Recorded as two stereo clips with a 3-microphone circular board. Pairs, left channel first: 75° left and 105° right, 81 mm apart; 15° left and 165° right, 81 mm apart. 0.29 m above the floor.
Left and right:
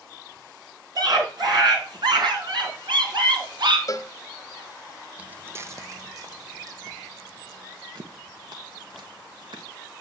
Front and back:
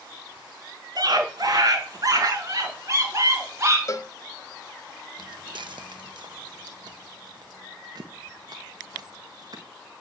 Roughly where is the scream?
Behind right.